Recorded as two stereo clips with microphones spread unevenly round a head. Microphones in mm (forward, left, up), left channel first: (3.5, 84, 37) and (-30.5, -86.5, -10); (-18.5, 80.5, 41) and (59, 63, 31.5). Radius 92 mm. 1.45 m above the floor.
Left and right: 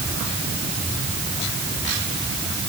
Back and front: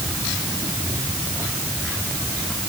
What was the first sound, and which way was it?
Only background noise.